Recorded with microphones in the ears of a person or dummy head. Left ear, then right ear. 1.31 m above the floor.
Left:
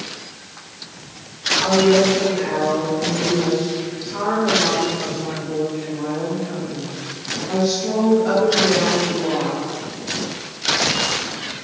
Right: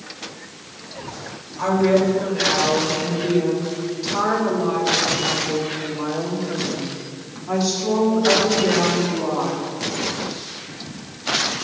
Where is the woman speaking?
70° right (ahead or behind), 5 m; by 9.6 s 45° right (ahead or behind), 2.5 m.